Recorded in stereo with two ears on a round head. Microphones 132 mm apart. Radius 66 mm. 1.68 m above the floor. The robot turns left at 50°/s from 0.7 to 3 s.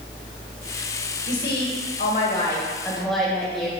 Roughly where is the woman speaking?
Left.